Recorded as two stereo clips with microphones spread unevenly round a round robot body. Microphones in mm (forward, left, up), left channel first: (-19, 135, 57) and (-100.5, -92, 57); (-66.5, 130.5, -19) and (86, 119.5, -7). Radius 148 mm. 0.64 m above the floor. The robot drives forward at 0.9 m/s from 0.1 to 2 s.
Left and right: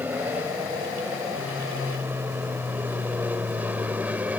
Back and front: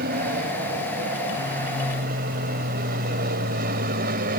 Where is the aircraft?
25° right.